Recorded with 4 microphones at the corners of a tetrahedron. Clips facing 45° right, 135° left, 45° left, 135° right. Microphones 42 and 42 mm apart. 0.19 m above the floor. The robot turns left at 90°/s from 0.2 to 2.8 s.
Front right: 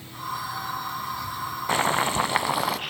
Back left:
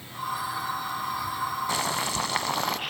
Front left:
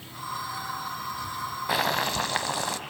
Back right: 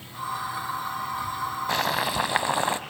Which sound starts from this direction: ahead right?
Boiling, at 1.7 s.